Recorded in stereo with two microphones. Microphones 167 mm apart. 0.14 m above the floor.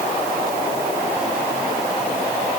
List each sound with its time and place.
Only background noise.